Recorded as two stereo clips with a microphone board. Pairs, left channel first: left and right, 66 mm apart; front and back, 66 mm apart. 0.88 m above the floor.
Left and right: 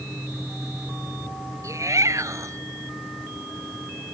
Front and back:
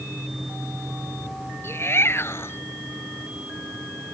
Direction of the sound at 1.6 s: 50° right.